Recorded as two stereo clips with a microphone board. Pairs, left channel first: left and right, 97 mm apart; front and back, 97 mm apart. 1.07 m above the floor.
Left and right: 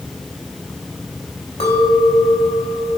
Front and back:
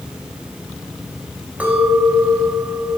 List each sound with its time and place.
1.6 s a clink: 105° left, 3.5 m